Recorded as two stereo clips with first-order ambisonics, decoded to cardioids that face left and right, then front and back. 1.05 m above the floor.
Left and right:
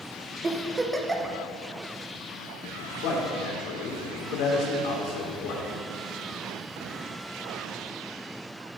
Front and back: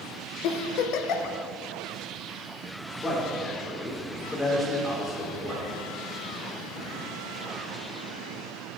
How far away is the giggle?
About 0.8 m.